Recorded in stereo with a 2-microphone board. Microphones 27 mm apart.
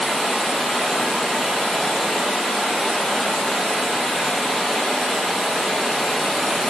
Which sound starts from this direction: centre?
Running water, at 0.0 s.